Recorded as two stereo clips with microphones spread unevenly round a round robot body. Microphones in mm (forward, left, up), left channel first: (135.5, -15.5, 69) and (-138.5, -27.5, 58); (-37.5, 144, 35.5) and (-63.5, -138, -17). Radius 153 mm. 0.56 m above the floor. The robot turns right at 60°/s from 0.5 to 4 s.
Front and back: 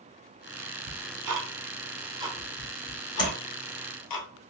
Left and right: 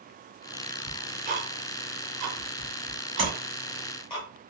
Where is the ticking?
Straight behind, 1.0 m; by 4.2 s 5° left, 1.0 m.